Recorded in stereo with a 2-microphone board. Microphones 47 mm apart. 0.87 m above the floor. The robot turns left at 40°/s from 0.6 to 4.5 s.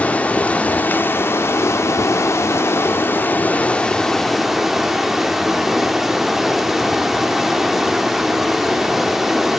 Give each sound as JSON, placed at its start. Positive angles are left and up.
{"t": 0.0, "sound": "running water", "azimuth_deg": 150, "distance_m": 0.9}